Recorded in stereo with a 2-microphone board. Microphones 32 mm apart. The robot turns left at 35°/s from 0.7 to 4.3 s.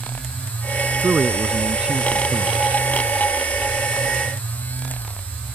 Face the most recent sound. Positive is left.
turn(degrees=125)